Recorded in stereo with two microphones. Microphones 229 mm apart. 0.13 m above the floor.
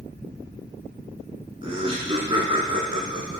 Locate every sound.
1.6 s laughter: 25° right (ahead or behind), 1.1 m